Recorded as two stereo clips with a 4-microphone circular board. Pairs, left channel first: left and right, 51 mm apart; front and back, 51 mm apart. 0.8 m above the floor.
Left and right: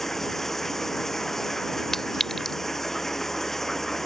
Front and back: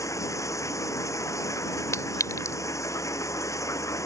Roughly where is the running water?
Ahead.